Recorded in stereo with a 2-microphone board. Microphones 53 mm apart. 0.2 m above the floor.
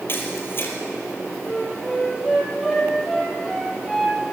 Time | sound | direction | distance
0.1 | a camera shutter | 45° left (ahead or behind) | 3.5 m
1.5 | a flute | centre (ahead or behind) | 3.5 m